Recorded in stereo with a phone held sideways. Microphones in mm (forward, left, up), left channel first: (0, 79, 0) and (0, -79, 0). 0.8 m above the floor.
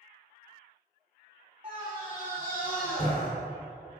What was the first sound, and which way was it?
A scream, 45° right (ahead or behind).